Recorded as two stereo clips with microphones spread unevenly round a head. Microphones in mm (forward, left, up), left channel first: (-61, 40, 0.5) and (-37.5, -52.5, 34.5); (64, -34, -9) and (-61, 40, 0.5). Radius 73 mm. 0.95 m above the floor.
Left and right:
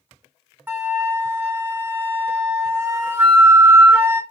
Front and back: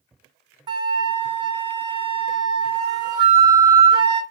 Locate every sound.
0.7 s a flute: 150° right, 0.7 m